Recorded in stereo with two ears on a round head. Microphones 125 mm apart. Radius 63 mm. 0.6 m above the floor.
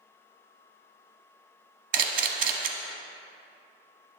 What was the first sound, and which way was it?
A camera shutter, 60° right (ahead or behind).